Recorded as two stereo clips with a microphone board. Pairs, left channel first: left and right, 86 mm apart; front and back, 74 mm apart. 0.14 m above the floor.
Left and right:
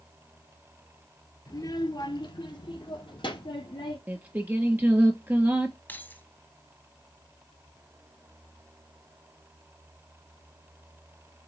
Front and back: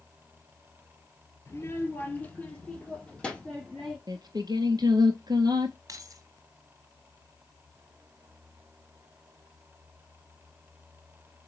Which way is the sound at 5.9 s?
155° left.